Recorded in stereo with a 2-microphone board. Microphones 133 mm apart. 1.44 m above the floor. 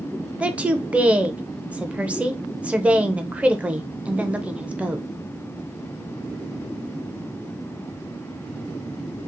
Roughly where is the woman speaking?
Centre.